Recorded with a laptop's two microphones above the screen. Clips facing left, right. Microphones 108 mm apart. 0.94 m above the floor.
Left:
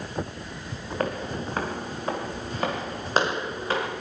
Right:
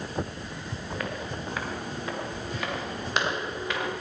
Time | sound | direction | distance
1.0 | footsteps | 40° left (ahead or behind) | 4 m